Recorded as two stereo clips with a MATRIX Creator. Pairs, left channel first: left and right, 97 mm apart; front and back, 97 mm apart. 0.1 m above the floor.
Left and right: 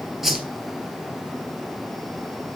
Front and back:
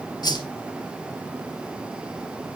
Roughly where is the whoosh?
Ahead.